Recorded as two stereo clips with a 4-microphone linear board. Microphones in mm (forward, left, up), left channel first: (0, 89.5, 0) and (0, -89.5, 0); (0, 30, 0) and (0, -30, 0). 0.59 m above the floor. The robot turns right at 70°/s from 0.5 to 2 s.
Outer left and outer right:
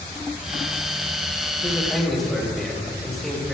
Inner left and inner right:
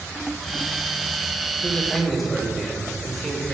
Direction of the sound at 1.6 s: 25° left (ahead or behind).